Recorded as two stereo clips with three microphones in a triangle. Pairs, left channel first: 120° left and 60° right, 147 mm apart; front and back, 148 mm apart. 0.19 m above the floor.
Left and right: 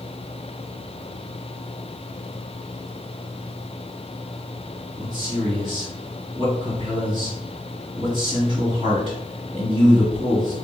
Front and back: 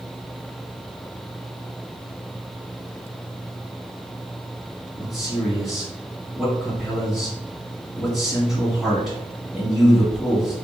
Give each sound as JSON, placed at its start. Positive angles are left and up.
{"t": 5.0, "sound": "a man speaking", "azimuth_deg": -90, "distance_m": 1.9}